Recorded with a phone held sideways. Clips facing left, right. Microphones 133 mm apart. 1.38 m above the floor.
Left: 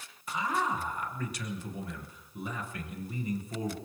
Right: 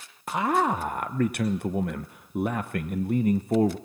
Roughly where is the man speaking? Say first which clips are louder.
Right 7 dB; right.